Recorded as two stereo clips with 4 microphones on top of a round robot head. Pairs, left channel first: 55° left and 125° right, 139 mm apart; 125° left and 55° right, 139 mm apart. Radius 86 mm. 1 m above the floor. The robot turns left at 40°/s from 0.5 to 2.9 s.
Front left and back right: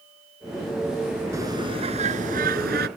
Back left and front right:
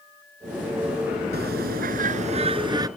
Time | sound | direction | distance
1.3 | a bird | 55° right | ?